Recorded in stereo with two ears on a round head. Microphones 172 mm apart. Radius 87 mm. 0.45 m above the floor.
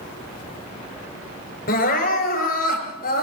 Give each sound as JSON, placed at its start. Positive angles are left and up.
{"t": 1.7, "sound": "crying", "side_deg": 45, "distance_m": 6.0}